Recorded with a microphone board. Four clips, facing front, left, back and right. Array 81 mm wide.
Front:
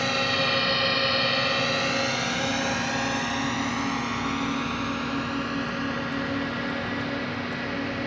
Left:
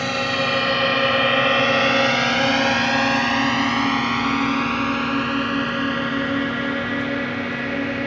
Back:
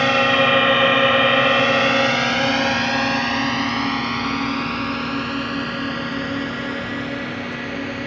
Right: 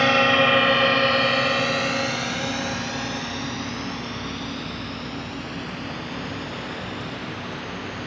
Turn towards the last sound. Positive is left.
turn(degrees=100)